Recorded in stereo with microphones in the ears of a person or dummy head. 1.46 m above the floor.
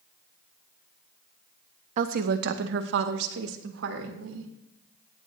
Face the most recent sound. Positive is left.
turn(degrees=-85)